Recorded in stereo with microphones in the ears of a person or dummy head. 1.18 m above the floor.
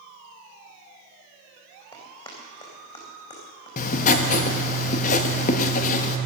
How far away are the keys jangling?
No keys jangling in this recording.